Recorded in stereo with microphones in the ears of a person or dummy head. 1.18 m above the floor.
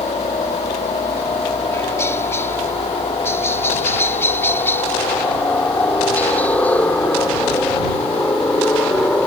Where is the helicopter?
15° left (ahead or behind); by 9.3 s 5° left (ahead or behind).